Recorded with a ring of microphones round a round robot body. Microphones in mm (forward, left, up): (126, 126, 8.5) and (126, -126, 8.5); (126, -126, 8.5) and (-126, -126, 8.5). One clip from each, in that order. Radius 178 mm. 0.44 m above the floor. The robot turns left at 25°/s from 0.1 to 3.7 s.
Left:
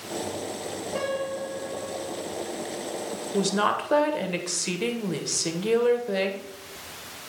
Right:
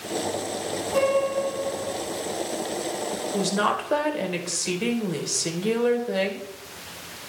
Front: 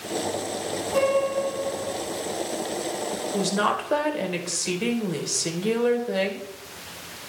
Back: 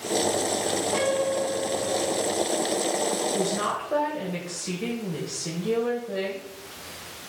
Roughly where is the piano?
Behind right.